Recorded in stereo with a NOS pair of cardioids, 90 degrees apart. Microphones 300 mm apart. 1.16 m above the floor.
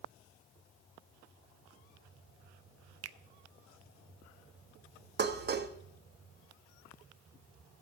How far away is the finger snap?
About 0.5 m.